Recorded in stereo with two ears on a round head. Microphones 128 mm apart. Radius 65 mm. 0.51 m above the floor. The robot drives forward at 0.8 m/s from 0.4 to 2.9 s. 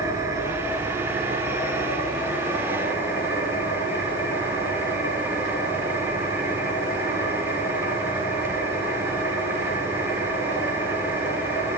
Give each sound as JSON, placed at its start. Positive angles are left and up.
{"t": 0.0, "sound": "an engine running", "side_deg": -25, "distance_m": 6.0}